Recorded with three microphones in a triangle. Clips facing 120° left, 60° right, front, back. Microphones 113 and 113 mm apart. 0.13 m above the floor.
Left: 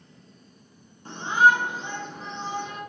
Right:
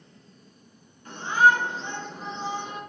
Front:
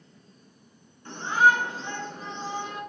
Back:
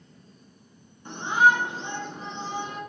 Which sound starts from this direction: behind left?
A shout, at 1.1 s.